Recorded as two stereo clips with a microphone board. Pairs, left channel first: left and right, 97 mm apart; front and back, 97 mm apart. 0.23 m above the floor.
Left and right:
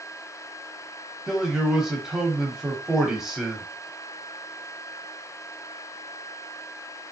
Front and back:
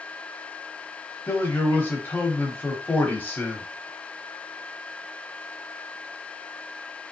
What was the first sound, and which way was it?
A man speaking, 15° right.